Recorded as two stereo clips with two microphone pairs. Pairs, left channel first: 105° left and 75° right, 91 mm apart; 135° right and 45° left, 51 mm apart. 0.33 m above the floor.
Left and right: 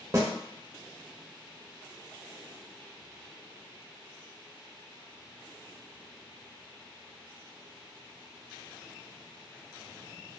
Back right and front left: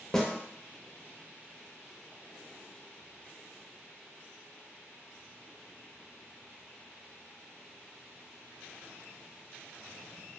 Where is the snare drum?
65° right, 0.5 m.